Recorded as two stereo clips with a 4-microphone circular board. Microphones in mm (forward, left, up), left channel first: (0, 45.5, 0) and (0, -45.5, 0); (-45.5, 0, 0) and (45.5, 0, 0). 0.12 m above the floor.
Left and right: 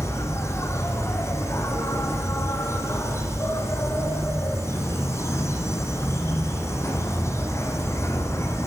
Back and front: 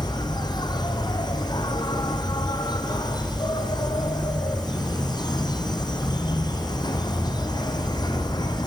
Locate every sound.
0.0 s an insect: 145° left, 2.5 m